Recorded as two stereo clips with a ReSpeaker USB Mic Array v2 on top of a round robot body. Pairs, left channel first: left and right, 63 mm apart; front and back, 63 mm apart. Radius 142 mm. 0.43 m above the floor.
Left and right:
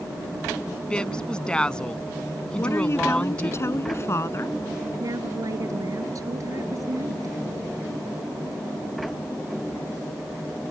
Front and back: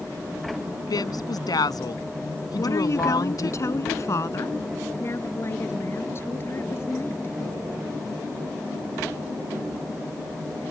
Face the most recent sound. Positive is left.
turn(degrees=-55)